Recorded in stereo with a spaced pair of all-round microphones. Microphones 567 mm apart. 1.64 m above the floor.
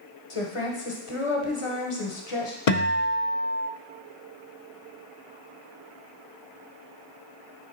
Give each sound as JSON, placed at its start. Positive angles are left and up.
{"t": 0.3, "sound": "a woman speaking", "side_deg": 60, "distance_m": 1.1}
{"t": 2.7, "sound": "a guitar", "side_deg": 85, "distance_m": 0.5}